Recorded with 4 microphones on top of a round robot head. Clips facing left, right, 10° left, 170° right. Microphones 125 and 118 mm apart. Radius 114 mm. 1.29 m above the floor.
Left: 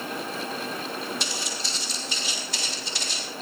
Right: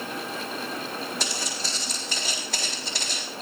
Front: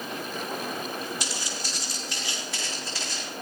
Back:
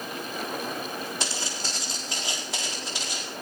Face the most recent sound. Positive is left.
turn(degrees=-95)